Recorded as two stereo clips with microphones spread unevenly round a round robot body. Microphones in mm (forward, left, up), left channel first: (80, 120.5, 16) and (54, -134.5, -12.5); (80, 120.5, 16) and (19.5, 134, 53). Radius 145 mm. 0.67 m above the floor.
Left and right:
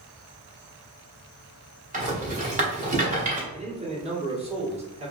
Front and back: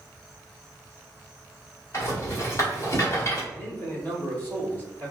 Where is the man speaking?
40° right, 2 m.